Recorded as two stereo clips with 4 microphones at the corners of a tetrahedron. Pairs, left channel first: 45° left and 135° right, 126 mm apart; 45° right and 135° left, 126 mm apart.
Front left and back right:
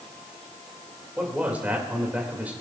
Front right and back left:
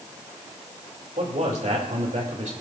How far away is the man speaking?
About 2.5 m.